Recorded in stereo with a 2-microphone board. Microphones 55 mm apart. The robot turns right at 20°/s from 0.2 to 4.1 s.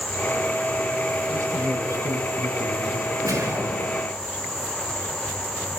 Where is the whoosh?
80° right, 5 m; by 4.1 s 65° right (ahead or behind), 5 m.